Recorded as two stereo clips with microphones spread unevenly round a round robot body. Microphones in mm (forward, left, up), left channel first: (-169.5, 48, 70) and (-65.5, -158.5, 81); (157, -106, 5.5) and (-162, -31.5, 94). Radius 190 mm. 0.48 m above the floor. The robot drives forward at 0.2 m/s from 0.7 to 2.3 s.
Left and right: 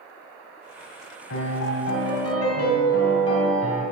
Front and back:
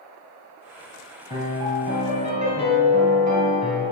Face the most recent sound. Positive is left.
turn(degrees=90)